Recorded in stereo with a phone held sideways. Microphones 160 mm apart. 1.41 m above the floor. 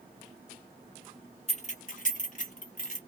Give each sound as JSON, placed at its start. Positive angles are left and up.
{"t": 1.5, "sound": "keys jangling", "side_deg": 40, "distance_m": 0.8}